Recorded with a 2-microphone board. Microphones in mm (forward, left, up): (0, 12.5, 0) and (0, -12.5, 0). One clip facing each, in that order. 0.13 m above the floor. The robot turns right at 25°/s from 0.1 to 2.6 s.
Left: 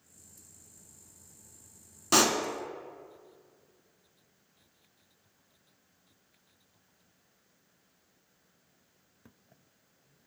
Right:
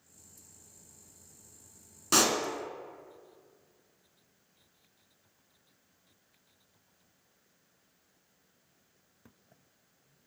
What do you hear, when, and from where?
2.1 s a pop: 5° left (ahead or behind), 0.6 m